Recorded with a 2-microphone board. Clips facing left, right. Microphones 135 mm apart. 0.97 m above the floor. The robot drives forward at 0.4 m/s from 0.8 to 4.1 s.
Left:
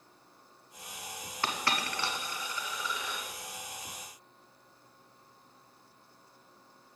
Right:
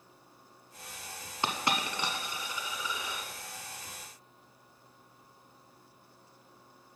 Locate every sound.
1.4 s a dropped coin: 20° right (ahead or behind), 0.9 m; by 3.3 s 15° right (ahead or behind), 1.4 m